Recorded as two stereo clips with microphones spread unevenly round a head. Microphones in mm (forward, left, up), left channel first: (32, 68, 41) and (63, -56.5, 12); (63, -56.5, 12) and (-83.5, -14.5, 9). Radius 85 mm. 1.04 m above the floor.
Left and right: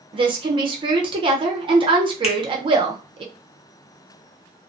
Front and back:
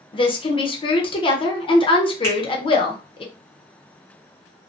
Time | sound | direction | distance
0.1 | a woman speaking | 65° right | 0.8 m
2.2 | a finger snap | 60° left | 0.7 m